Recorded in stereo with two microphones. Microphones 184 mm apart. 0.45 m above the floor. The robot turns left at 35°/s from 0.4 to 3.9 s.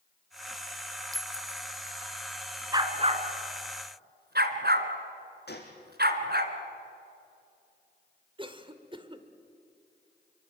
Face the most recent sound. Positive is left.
turn(degrees=-30)  # may be behind; listen again after turning